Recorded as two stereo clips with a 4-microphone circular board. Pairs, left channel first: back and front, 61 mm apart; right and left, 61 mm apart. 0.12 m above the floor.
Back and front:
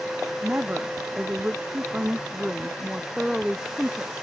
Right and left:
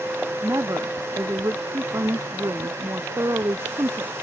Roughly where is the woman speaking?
Ahead left.